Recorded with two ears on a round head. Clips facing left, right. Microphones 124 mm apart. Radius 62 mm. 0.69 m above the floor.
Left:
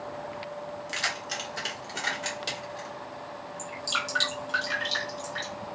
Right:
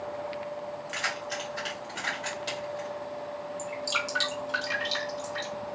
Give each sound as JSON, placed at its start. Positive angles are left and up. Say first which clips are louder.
{"t": 0.9, "sound": "keys jangling", "louder": "right 1 dB", "side_deg": 40, "distance_m": 1.3}
{"t": 3.6, "sound": "dripping", "louder": "even", "side_deg": 0, "distance_m": 1.3}